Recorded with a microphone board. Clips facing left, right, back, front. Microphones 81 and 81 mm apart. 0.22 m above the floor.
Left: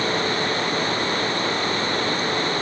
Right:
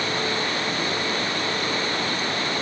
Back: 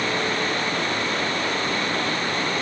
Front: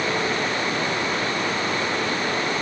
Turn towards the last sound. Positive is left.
No sound to turn to.